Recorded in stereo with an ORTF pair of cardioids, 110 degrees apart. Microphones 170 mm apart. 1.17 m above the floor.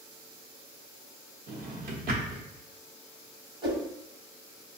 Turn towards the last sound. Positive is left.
turn(degrees=-25)